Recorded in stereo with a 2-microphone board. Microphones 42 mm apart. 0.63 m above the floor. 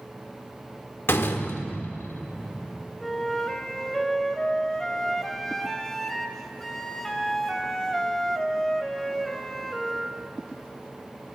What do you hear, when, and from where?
1.1 s a door slam: 70° left (ahead or behind), 0.9 m
3.0 s a flute: 10° left (ahead or behind), 0.9 m